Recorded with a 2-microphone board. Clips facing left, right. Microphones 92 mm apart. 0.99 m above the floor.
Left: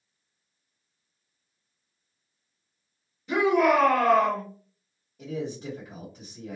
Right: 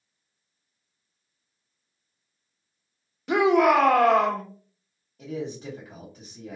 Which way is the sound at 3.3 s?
75° right (ahead or behind).